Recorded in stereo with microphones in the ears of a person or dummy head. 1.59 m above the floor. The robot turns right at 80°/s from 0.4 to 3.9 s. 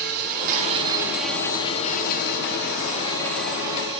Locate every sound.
0.0 s an insect: 65° right, 0.8 m; by 4.0 s 145° right, 0.8 m